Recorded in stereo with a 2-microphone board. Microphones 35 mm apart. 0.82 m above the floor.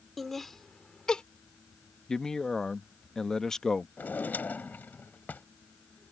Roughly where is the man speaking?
Centre.